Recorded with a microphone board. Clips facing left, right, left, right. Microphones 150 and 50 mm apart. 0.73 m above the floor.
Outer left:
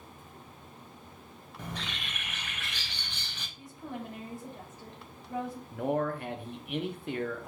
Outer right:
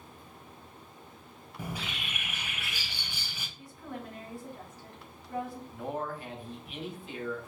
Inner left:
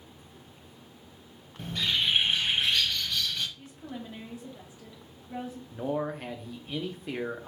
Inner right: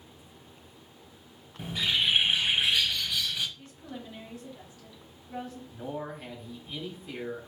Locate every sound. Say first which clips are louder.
1.6 s a bird: outer right 2 dB, inner right 1 dB; 10° right (ahead or behind), 0.7 m
3.6 s a woman speaking: outer left 2 dB, inner left 2 dB; 20° left (ahead or behind), 1.6 m
5.7 s a man speaking: outer left 7 dB, inner left 7 dB; 65° left (ahead or behind), 0.9 m